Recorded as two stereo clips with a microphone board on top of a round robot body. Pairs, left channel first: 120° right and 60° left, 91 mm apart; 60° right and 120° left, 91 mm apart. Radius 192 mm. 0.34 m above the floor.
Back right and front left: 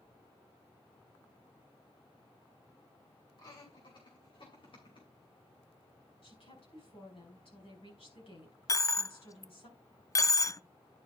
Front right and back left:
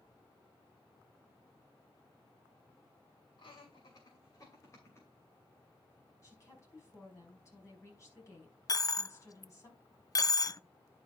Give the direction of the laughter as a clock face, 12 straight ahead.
3 o'clock.